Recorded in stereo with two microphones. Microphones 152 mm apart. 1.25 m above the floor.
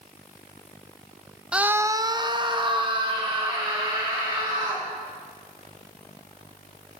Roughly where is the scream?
Centre.